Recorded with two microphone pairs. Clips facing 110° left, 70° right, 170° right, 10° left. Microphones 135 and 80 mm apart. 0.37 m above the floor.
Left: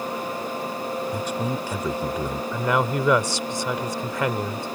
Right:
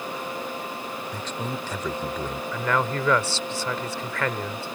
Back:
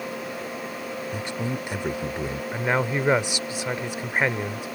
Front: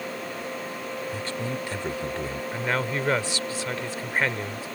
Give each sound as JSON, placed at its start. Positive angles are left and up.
{"t": 1.1, "sound": "a man speaking", "azimuth_deg": 165}
{"t": 2.5, "sound": "a man speaking", "azimuth_deg": 155}